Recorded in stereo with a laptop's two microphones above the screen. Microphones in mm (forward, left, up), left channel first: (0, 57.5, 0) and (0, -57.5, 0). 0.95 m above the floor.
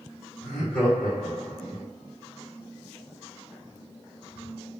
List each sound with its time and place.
0.4 s laughter: 10° left (ahead or behind), 1.8 m